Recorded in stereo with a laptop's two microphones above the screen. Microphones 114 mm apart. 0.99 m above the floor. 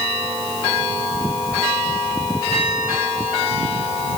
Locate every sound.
Only background noise.